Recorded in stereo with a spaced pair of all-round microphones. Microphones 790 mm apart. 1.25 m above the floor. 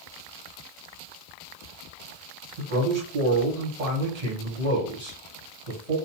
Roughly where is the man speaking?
Right.